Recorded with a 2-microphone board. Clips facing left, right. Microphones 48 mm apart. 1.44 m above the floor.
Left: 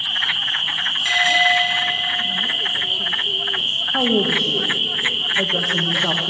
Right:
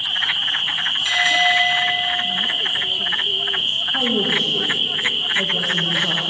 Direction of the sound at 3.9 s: 80° left.